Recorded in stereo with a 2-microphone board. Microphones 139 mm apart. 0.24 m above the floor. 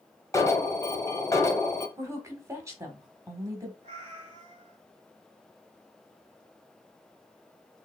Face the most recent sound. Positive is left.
turn(degrees=-45)  # may be behind; listen again after turning